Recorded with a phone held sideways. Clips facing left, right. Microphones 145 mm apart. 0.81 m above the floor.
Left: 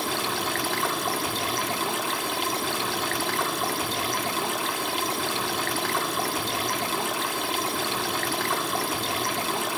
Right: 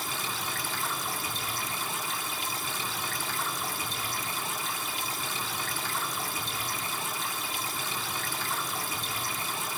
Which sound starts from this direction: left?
Running water, at 0.0 s.